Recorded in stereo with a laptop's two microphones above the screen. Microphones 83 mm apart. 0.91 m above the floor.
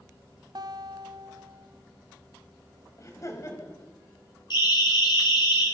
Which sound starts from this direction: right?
A guitar, at 0.6 s.